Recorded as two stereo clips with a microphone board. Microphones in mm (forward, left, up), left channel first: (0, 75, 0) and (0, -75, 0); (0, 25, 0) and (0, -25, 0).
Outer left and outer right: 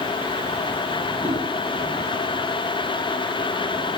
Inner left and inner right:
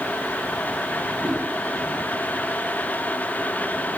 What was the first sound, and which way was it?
A whoosh, 40° right (ahead or behind).